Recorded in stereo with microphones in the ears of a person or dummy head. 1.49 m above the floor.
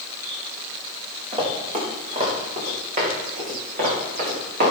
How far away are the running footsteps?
About 4.5 m.